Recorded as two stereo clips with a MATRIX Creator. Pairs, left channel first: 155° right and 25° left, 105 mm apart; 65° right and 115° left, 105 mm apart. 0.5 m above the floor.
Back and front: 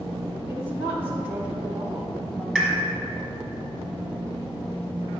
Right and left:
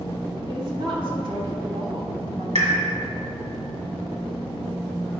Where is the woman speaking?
85° left, 2.5 m; by 2.5 s 110° left, 1.6 m.